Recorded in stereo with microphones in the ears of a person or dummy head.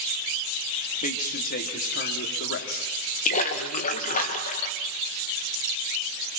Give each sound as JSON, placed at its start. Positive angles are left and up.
{"t": 1.0, "sound": "a man speaking", "side_deg": 45, "distance_m": 2.5}
{"t": 3.2, "sound": "a splash", "side_deg": 40, "distance_m": 2.0}